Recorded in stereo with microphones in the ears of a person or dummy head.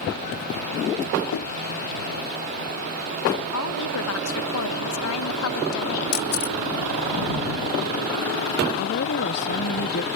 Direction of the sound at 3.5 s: 80° left.